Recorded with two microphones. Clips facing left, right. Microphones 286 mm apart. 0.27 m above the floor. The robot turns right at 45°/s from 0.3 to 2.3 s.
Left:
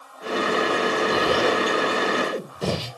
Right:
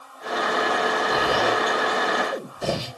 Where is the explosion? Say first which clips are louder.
Left 2 dB; 30° left (ahead or behind), 3 m; by 2.9 s 85° left, 3 m.